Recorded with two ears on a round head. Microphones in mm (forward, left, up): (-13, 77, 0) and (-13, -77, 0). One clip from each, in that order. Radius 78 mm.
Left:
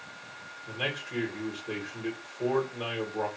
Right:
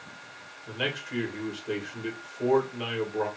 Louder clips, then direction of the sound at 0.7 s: Right 2 dB; 35° right (ahead or behind).